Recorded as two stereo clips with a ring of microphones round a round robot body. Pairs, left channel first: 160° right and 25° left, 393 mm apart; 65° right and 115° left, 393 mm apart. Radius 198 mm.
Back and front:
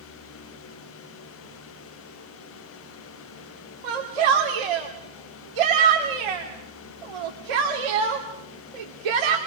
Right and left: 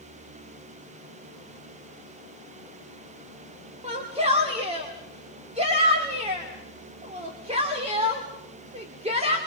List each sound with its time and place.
3.8 s a shout: 35° left, 2.5 m